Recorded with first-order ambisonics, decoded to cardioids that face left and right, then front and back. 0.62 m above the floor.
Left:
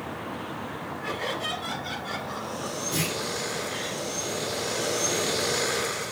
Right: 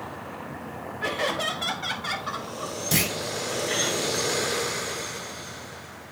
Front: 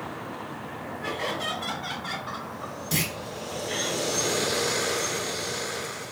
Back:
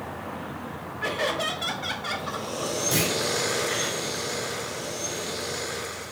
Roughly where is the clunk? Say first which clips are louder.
Right 5 dB, back 2 dB; right.